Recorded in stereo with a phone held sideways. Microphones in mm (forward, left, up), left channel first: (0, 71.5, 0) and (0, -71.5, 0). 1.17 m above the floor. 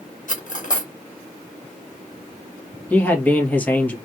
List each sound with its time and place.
0.3 s cutlery clinking: 65° left (ahead or behind), 1.0 m
2.9 s a man speaking: 10° left (ahead or behind), 1.5 m